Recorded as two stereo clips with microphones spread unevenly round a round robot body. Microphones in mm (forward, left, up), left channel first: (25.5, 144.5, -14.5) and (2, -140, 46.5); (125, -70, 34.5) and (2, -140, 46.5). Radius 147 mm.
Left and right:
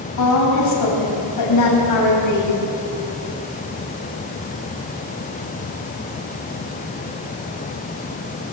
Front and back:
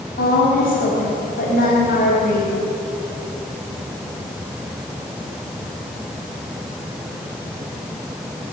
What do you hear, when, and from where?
0.2 s a woman speaking: 65° left, 5 m